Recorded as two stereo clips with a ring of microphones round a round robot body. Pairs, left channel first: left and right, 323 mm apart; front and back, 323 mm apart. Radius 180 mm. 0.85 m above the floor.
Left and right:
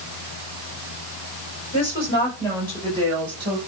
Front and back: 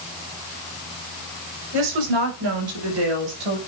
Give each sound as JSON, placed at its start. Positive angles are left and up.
{"t": 1.7, "sound": "a woman speaking", "azimuth_deg": 165, "distance_m": 5.0}